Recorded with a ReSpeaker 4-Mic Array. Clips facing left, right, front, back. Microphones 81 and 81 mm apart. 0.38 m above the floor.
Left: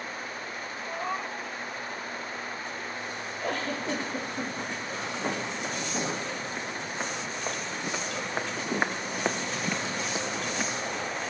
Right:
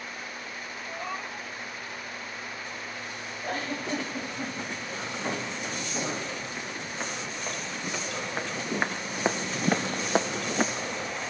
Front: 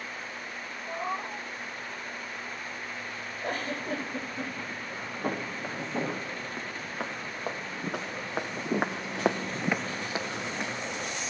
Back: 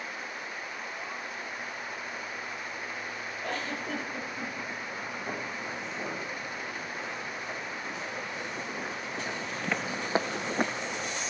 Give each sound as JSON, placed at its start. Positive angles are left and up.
{"t": 0.9, "sound": "a cat meowing", "azimuth_deg": 20, "distance_m": 0.7}
{"t": 3.4, "sound": "a giggle", "azimuth_deg": 75, "distance_m": 9.5}
{"t": 5.2, "sound": "footsteps", "azimuth_deg": 20, "distance_m": 6.5}